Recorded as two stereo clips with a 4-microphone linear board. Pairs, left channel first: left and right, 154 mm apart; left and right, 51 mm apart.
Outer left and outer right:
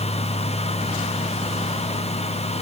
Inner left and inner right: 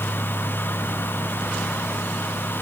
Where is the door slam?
I don't hear a door slam.